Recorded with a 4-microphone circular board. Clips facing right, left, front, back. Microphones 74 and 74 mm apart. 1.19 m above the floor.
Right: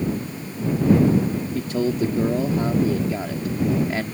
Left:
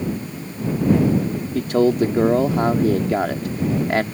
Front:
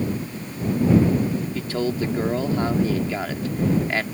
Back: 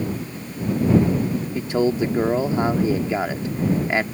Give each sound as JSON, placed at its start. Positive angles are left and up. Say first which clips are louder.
{"t": 1.6, "sound": "a man speaking", "louder": "left 7 dB, back 8 dB", "azimuth_deg": 110}